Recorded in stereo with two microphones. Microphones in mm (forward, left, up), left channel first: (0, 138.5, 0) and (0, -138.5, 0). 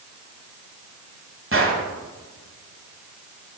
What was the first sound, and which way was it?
A gunshot, 45° right (ahead or behind).